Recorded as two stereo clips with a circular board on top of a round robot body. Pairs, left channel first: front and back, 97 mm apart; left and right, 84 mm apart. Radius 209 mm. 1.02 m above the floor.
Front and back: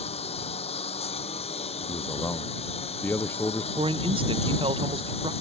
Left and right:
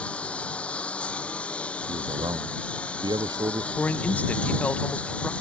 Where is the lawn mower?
10° left.